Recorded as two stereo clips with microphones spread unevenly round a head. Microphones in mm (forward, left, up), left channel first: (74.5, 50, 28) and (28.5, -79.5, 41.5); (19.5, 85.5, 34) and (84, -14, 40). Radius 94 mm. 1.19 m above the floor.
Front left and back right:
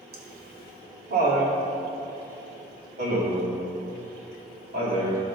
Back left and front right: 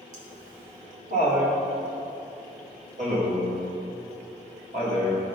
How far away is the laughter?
About 1.9 m.